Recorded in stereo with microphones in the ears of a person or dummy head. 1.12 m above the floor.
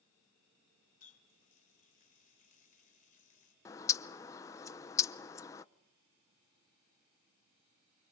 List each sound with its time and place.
1.0 s a running tap: 40° left (ahead or behind), 3 m
3.6 s a bird: 25° left (ahead or behind), 0.6 m